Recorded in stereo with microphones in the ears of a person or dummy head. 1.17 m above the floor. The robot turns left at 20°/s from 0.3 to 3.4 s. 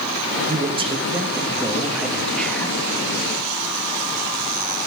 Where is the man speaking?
145° right, 1.2 m; by 2.8 s 170° left, 1.2 m.